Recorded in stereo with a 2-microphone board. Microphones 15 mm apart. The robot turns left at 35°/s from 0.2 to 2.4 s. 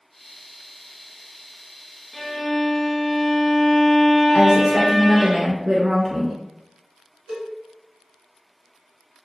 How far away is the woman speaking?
About 1.1 m.